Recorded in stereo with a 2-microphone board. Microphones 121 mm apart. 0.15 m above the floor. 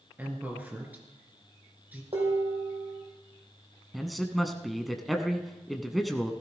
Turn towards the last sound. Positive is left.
turn(degrees=0)  # may be behind; listen again after turning